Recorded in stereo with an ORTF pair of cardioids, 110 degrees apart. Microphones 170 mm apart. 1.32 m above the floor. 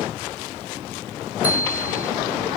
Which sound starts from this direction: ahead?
A bicycle bell, at 1.4 s.